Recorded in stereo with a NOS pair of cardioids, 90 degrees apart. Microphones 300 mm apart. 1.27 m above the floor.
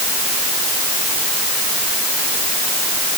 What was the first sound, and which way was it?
Only background noise.